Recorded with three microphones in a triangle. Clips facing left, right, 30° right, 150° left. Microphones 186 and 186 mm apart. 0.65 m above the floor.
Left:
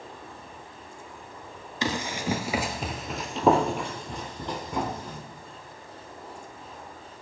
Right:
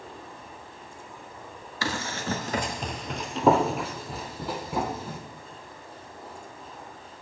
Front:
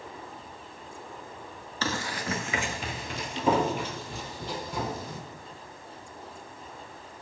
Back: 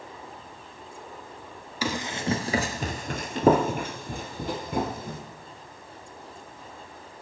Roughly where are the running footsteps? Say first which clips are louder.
Left 2 dB, back 3 dB; left.